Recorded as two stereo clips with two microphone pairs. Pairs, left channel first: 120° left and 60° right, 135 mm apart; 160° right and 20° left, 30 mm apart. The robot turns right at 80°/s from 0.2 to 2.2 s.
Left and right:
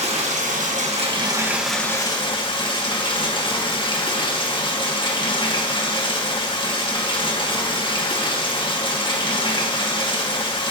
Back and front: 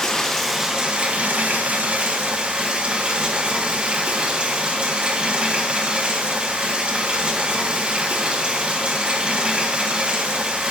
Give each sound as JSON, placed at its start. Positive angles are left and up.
{"t": 0.0, "sound": "running water", "azimuth_deg": -95, "distance_m": 1.3}